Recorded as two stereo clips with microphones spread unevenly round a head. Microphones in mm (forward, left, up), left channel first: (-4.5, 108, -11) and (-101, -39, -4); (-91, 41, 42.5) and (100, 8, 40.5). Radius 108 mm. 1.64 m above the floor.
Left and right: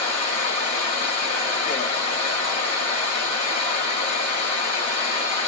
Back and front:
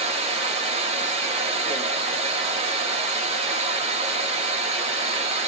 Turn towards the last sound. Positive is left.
turn(degrees=25)